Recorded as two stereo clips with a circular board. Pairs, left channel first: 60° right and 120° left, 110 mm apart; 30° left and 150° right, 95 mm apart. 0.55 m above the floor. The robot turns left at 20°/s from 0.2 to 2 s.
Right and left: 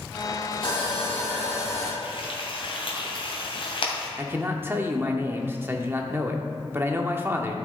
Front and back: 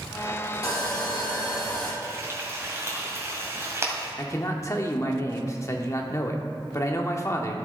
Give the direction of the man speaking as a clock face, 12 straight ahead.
10 o'clock.